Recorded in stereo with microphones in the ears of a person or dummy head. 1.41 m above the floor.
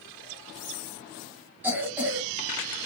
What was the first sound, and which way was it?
A cough, 10° right (ahead or behind).